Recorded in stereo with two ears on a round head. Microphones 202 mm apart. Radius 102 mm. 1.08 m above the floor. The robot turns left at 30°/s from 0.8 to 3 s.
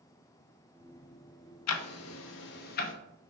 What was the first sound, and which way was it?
Ticking, 75° left (ahead or behind).